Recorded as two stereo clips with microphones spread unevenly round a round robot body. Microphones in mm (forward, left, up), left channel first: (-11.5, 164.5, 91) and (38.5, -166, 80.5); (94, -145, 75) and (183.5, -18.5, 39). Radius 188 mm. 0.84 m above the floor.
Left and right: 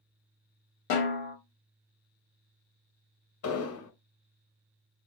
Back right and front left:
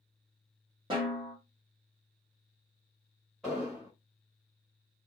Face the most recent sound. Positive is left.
turn(degrees=140)